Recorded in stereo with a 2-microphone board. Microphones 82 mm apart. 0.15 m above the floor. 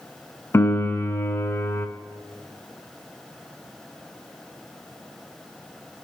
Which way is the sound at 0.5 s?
30° left (ahead or behind).